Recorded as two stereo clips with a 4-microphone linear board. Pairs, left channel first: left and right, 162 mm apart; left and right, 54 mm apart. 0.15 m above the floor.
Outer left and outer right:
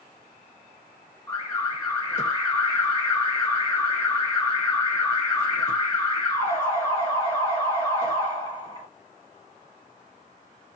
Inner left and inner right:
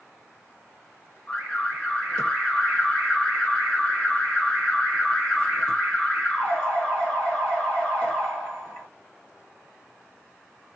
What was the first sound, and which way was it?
An alarm, 15° left (ahead or behind).